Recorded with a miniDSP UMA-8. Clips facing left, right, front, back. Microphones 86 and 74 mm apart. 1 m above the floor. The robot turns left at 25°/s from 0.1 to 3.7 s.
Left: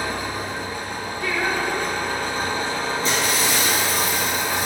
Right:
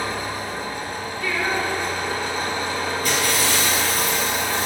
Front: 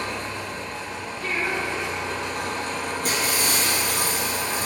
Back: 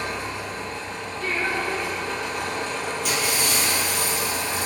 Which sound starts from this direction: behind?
Singing, at 1.2 s.